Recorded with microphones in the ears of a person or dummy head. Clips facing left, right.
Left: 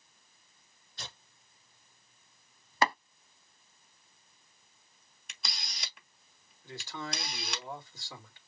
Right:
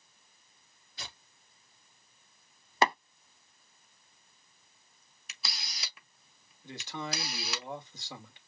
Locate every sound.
1.0 s tearing paper: 10° right (ahead or behind), 3.5 m
2.8 s tapping: 25° right (ahead or behind), 1.1 m
5.3 s a camera shutter: 5° right (ahead or behind), 1.6 m
6.6 s a man speaking: 25° right (ahead or behind), 2 m